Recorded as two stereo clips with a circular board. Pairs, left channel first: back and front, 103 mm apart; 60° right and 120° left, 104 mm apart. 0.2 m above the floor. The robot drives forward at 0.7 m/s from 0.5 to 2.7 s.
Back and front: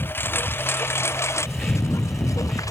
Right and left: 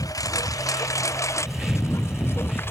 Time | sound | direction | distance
0.0 | a lawn mower | 110° right | ?